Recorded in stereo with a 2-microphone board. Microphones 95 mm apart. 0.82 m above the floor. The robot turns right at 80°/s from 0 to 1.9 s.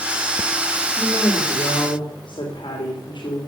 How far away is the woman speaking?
About 3.5 m.